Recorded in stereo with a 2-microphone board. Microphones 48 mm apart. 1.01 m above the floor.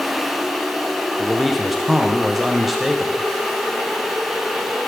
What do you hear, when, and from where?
1.2 s a man speaking: 5° right (ahead or behind), 0.6 m